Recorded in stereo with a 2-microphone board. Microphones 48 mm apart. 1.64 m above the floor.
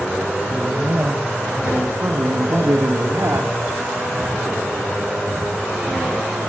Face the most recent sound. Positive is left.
turn(degrees=-70)  # may be behind; listen again after turning